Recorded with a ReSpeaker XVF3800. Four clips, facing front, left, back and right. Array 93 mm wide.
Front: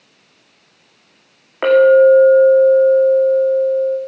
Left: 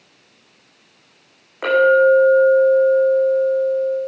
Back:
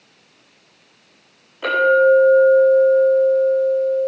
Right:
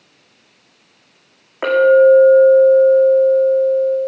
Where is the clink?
25° right, 8 m.